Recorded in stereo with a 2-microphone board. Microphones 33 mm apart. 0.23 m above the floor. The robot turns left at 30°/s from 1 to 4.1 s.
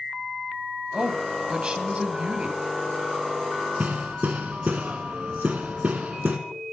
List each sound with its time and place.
0.9 s a woman speaking: 55° right, 1.3 m; by 2.6 s 100° right, 1.3 m
3.8 s hammering: 55° right (ahead or behind), 1.2 m; by 6.4 s 50° right (ahead or behind), 1.2 m